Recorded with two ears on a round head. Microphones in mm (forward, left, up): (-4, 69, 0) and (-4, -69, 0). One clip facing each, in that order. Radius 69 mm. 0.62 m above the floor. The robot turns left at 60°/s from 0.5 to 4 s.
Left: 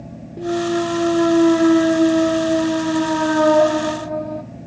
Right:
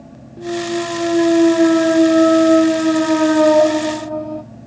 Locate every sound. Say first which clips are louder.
0.4 s a clunk: left 1 dB; 25° left, 0.6 m; by 4.4 s 175° left, 0.6 m